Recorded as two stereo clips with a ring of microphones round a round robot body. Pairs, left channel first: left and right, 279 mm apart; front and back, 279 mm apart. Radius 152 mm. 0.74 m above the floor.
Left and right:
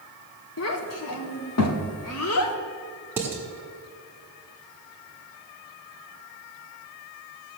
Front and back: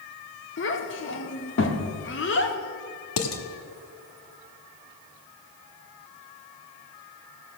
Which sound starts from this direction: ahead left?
A child speaking, at 0.6 s.